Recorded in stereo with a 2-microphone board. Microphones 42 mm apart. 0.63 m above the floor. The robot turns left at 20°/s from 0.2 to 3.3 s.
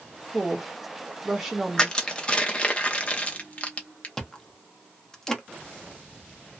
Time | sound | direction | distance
0.3 | a woman speaking | centre (ahead or behind) | 0.6 m
1.8 | crushing | 15° left (ahead or behind) | 0.7 m
4.2 | chewing | 15° left (ahead or behind) | 0.7 m